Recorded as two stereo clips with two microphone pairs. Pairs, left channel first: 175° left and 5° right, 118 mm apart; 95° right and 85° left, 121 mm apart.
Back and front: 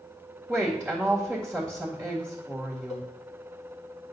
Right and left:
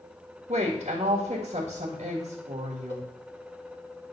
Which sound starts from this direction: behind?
A cowbell, at 2.9 s.